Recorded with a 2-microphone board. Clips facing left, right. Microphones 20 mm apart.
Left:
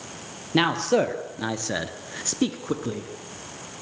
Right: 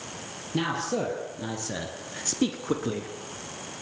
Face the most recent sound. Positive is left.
turn(degrees=-15)  # may be behind; listen again after turning